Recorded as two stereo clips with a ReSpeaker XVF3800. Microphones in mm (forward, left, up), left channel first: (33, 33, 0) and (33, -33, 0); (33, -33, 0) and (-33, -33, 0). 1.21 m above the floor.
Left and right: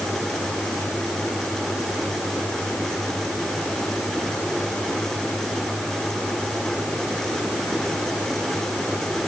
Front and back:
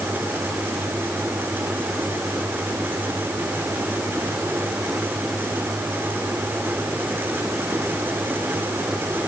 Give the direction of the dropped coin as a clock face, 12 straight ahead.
I don't hear a dropped coin.